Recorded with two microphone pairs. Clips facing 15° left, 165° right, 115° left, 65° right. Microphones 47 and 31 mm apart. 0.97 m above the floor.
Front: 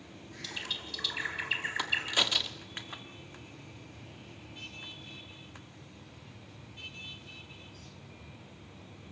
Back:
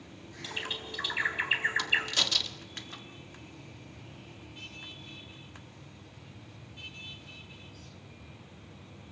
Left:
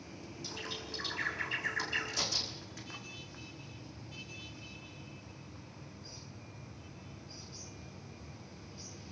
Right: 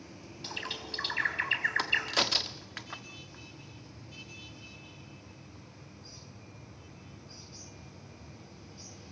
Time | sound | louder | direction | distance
0.4 | a bird | back 3 dB, right 4 dB | 100° right | 4 m
1.8 | a crack | back 1 dB, right 6 dB | 55° right | 1.6 m